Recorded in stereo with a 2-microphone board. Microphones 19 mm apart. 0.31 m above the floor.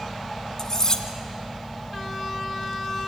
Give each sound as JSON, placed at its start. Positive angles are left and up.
{"t": 0.6, "sound": "cutlery clinking", "side_deg": 30, "distance_m": 1.6}